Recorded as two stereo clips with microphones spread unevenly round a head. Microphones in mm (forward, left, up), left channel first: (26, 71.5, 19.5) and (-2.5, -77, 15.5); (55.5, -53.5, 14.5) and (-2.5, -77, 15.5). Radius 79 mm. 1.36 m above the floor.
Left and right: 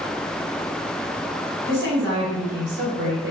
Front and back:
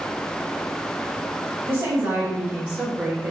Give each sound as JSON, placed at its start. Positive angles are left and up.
{"t": 1.7, "sound": "a woman speaking", "azimuth_deg": -120, "distance_m": 1.7}